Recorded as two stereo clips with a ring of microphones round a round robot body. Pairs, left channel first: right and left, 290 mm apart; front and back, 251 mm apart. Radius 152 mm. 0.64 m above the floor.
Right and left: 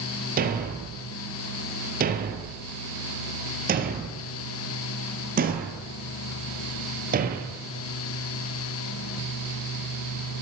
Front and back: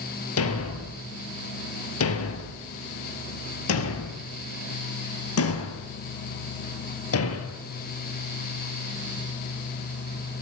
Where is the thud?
30° left, 3.5 m.